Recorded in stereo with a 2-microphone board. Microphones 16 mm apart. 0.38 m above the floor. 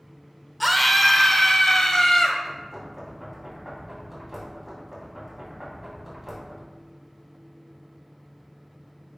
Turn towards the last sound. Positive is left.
turn(degrees=-15)  # may be behind; listen again after turning